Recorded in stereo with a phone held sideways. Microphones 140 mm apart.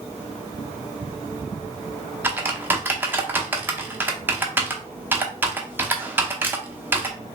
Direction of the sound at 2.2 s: 15° right (ahead or behind).